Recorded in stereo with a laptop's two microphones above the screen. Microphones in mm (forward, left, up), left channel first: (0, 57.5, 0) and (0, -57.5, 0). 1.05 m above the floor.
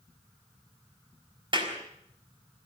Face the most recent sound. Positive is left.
turn(degrees=-45)  # may be behind; listen again after turning